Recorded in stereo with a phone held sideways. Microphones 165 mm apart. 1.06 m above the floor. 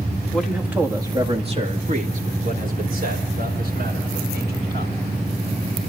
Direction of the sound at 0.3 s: 5° left (ahead or behind).